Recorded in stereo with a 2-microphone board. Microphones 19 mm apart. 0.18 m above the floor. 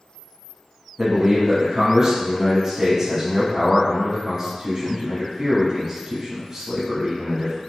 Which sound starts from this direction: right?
A man speaking, at 1.0 s.